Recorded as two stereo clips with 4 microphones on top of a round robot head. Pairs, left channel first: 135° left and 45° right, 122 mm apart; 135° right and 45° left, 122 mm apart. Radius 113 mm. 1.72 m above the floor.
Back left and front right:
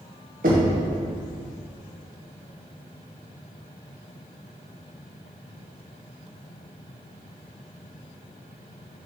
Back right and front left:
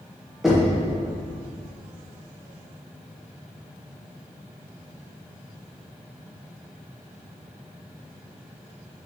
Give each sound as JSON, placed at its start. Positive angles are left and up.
{"t": 0.4, "sound": "knocking", "azimuth_deg": -40, "distance_m": 0.9}